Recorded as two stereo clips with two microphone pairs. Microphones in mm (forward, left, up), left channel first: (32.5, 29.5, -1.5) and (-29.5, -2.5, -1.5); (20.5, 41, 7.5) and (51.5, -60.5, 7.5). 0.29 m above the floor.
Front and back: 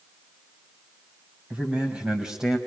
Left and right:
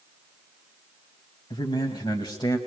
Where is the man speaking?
135° left, 2 m; by 2.6 s 125° left, 1.6 m.